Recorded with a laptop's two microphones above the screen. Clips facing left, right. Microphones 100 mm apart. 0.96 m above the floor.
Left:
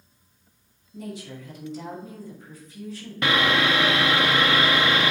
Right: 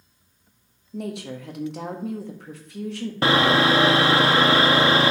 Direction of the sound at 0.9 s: 70° right (ahead or behind).